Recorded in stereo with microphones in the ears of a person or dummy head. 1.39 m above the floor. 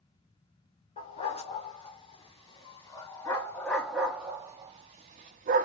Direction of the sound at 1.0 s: 30° left (ahead or behind).